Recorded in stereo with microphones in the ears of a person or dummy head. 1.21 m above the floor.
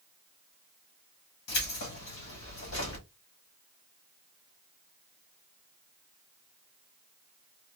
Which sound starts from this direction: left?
Keys jangling, at 1.5 s.